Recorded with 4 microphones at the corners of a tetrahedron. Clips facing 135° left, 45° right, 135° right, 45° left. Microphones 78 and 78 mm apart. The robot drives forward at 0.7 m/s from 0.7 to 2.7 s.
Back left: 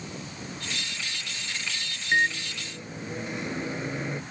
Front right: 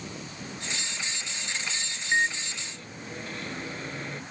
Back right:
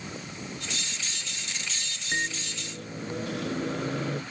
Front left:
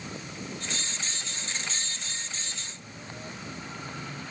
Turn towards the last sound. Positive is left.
turn(degrees=-150)